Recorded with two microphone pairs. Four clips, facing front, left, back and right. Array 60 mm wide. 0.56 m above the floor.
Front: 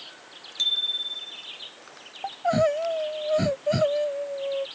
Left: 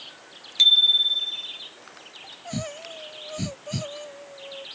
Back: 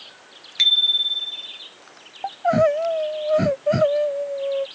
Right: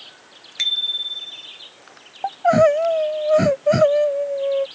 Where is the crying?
95° right.